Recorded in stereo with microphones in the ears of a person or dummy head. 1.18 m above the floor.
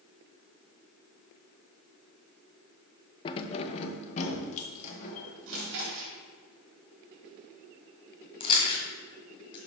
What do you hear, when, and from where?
3.2 s keys jangling: 20° left (ahead or behind), 0.5 m; by 5.9 s 35° left (ahead or behind), 2 m
5.5 s chewing: 75° right (ahead or behind), 2.5 m
8.4 s chewing: 20° left (ahead or behind), 1.7 m